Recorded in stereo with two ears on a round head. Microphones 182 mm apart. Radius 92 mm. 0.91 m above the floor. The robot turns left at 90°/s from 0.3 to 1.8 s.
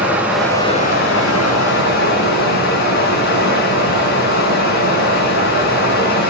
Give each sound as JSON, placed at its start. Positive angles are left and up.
{"t": 0.0, "sound": "running water", "azimuth_deg": -175, "distance_m": 4.0}